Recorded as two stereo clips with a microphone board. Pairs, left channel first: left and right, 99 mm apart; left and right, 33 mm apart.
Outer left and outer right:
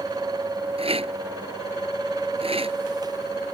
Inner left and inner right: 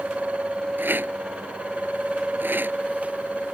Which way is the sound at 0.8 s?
75° right (ahead or behind).